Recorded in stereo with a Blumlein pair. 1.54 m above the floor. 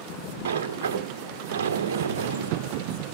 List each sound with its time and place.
0.5 s a sliding door: 60° right, 0.7 m